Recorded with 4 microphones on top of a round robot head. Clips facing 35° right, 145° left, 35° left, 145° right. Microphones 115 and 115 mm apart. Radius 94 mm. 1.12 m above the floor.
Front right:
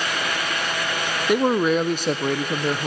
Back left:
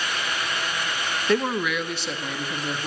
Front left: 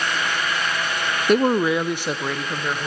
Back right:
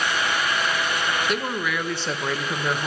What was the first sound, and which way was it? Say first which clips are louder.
A man speaking: front right 5 dB, front left 9 dB; 35° left.